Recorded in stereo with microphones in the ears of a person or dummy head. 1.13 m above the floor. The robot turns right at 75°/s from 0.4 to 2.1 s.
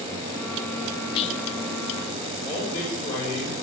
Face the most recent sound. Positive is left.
turn(degrees=20)  # may be behind; listen again after turning